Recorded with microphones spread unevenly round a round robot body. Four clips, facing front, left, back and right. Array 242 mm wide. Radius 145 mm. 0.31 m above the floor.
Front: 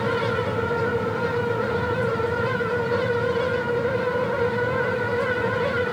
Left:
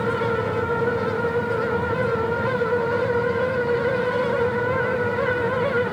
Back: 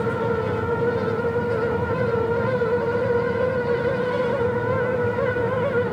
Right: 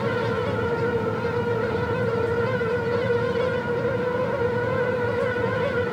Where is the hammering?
I don't hear hammering.